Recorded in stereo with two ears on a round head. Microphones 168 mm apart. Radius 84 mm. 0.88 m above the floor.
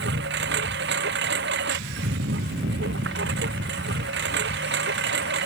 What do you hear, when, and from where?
0.0 s a lawn mower: 65° right (ahead or behind)